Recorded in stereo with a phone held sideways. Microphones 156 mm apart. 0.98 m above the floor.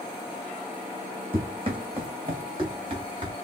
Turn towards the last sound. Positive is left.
turn(degrees=-40)  # may be behind; listen again after turning